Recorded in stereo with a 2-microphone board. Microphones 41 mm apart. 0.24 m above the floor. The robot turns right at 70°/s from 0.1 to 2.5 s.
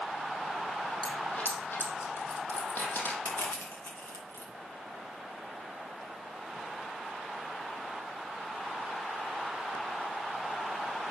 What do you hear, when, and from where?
1.0 s a dropped coin: 20° left (ahead or behind), 4.5 m; by 3.1 s 60° left (ahead or behind), 4.5 m
3.2 s crushing: 70° left (ahead or behind), 6.5 m